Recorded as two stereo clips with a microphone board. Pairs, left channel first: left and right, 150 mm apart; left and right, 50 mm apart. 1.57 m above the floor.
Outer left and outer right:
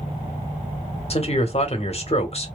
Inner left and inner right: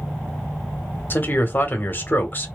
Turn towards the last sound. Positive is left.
turn(degrees=40)  # may be behind; listen again after turning